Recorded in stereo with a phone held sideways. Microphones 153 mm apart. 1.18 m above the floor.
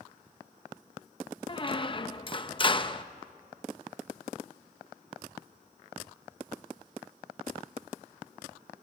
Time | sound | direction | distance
1.5 | a squeak | 35° left (ahead or behind) | 0.7 m